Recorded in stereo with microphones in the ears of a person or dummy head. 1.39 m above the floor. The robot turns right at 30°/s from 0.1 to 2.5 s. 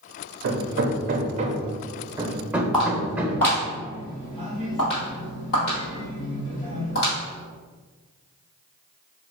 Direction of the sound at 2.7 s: Centre (ahead or behind).